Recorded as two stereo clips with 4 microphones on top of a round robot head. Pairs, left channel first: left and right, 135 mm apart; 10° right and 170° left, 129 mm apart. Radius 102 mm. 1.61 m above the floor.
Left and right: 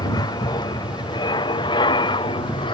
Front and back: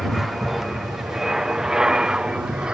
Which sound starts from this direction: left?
An aircraft, at 0.0 s.